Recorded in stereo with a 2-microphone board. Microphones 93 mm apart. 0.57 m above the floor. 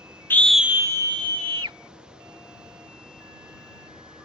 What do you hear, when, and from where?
0.3 s a scream: 20° left (ahead or behind); by 1.8 s 65° right (ahead or behind)